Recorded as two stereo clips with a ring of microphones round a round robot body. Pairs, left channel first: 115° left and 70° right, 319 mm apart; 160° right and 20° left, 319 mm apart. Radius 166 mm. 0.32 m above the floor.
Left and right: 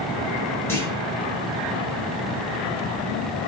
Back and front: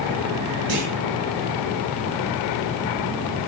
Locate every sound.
0.7 s a clunk: 30° left, 6.5 m